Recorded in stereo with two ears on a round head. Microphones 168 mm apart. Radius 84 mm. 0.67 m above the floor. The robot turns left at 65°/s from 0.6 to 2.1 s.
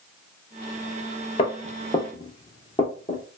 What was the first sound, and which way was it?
Footsteps, 30° left (ahead or behind).